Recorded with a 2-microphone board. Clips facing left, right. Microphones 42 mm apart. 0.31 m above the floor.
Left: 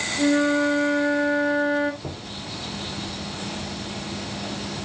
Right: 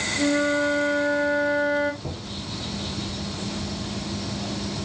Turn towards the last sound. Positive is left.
turn(degrees=65)  # may be behind; listen again after turning